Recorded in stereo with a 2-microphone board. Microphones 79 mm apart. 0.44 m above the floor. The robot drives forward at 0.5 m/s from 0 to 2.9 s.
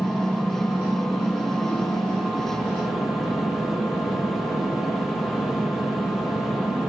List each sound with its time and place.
0.0 s an engine running: 10° left (ahead or behind), 1.9 m; by 6.9 s 5° left (ahead or behind), 3.5 m